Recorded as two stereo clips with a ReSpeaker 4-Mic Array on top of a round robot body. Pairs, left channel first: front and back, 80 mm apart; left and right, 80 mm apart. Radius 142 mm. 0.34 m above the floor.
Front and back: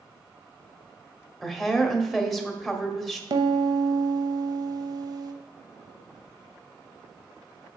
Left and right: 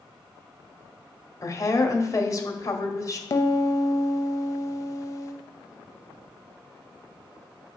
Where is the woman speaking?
90° left, 1.4 m.